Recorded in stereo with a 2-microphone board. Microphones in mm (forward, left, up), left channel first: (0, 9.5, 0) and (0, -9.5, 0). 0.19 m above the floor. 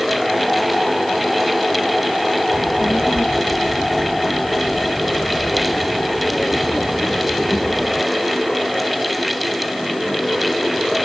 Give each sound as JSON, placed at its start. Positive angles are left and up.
{"t": 2.5, "sound": "a child speaking", "side_deg": 55}